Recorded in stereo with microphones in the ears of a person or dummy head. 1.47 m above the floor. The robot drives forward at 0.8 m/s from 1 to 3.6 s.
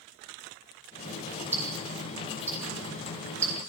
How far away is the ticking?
About 6.5 m.